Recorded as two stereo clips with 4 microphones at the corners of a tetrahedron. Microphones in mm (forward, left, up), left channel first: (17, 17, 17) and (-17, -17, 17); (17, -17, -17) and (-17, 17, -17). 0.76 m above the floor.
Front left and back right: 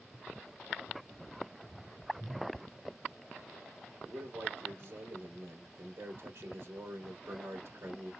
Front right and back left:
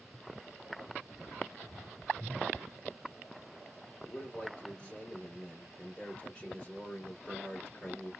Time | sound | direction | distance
4.0 | a man speaking | 110° right | 3 m